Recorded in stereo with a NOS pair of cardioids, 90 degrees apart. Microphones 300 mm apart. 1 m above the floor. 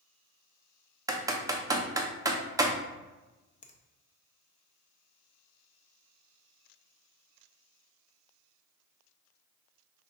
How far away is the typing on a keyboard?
About 0.7 m.